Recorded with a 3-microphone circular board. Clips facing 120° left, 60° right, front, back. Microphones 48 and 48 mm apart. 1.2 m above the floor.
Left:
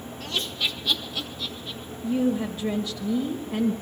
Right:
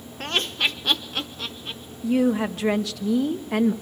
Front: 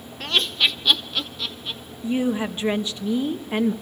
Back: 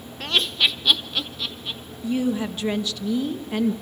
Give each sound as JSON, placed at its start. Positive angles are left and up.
{"t": 0.2, "sound": "laughter", "azimuth_deg": -90, "distance_m": 0.8}
{"t": 2.0, "sound": "a woman speaking", "azimuth_deg": -65, "distance_m": 1.0}